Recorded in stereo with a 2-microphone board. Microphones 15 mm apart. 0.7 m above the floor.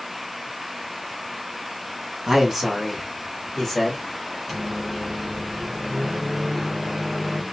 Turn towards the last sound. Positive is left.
turn(degrees=0)  # may be behind; listen again after turning